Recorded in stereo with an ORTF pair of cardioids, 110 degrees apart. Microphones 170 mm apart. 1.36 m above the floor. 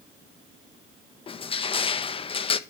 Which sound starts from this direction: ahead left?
Crushing, at 1.3 s.